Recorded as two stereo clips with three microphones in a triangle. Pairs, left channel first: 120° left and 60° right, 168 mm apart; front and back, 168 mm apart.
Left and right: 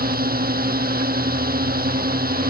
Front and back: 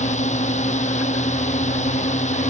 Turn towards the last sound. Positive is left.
turn(degrees=-40)